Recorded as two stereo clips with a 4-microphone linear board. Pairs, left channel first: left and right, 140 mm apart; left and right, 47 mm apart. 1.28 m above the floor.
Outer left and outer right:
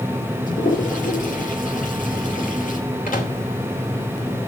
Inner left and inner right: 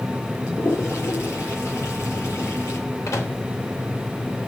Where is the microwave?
75° left (ahead or behind), 3.5 m.